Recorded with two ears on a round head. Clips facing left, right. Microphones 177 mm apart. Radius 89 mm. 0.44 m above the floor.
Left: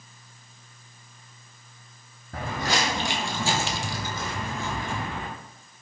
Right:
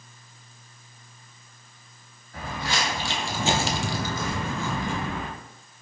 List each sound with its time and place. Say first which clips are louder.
2.3 s footsteps: left 3 dB; 50° left (ahead or behind), 1.1 m; by 5.3 s 80° right, 1.8 m